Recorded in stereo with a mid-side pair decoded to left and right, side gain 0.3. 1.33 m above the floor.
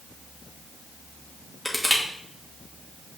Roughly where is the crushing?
Ahead.